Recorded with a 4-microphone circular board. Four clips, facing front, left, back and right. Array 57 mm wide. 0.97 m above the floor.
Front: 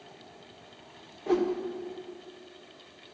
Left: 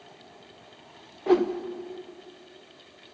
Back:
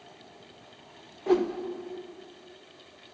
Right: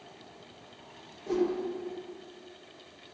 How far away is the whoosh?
About 0.6 m.